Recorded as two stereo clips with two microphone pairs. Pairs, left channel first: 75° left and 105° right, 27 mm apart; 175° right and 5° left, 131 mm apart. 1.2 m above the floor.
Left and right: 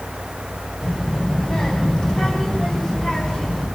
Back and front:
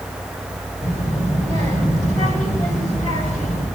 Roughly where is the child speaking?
Behind left.